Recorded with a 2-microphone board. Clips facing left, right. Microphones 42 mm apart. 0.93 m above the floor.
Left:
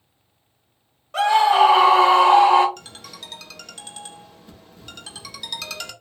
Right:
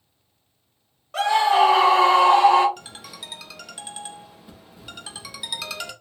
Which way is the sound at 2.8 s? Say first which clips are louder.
Even; 5° right (ahead or behind).